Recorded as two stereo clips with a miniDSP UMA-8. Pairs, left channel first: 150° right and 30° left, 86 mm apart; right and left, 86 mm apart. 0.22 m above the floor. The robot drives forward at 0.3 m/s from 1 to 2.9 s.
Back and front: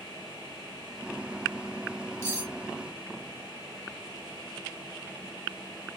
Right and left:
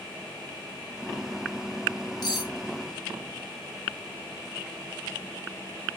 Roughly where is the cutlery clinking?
Right.